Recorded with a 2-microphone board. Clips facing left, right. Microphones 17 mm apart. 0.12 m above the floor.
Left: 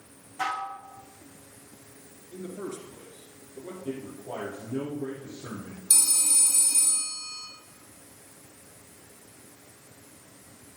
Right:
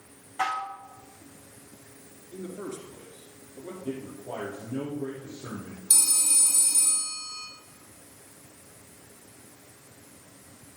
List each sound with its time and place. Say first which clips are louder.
0.4 s dishes clattering: right 1 dB; 70° right (ahead or behind), 6 m
2.3 s a man speaking: even; 20° left (ahead or behind), 2 m
3.9 s a man speaking: right 1 dB; 50° right (ahead or behind), 3.5 m
5.9 s a phone ringing: even; 15° right (ahead or behind), 3 m